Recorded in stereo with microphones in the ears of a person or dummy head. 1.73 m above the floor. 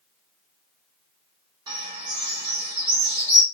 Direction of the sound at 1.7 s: 25° right (ahead or behind).